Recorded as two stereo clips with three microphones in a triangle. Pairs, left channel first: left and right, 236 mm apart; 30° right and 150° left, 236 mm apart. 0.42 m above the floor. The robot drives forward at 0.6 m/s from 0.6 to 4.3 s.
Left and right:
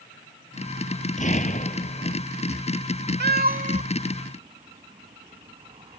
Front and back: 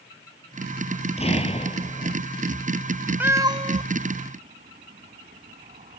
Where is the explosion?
35° left.